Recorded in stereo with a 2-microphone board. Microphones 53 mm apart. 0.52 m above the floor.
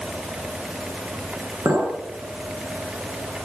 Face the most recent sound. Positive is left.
turn(degrees=-80)